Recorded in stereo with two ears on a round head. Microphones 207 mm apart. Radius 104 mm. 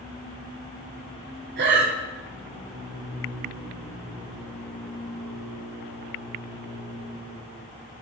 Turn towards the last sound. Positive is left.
turn(degrees=-50)  # may be behind; listen again after turning